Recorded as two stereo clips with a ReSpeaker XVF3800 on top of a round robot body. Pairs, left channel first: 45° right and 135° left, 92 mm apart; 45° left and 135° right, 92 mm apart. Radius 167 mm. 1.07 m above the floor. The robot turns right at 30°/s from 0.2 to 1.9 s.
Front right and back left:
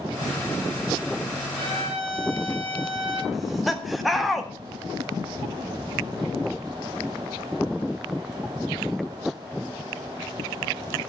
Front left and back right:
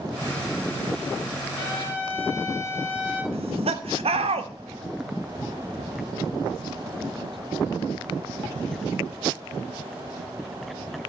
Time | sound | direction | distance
1.6 | a trumpet | 105° left | 2.5 m
3.3 | laughter | 135° right | 1.7 m